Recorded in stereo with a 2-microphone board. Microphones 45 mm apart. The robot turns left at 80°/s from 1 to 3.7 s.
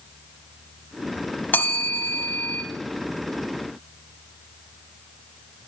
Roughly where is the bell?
Behind left.